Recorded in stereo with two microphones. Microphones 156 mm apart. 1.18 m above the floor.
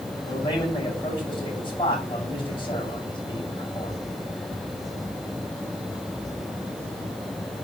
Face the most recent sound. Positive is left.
turn(degrees=30)  # may be behind; listen again after turning